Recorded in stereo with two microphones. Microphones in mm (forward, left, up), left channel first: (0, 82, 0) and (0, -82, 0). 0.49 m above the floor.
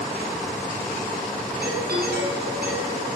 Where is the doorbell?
75° right (ahead or behind), 8 m.